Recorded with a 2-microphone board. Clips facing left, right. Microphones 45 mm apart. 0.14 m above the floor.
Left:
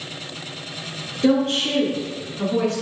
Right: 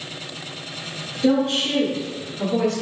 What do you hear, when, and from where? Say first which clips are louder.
1.2 s a woman speaking: left 1 dB; 45° left (ahead or behind), 1.7 m; by 2.8 s 15° left (ahead or behind), 1.3 m